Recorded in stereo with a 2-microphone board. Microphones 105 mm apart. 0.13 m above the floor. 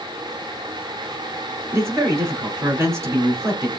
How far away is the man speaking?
About 1.4 m.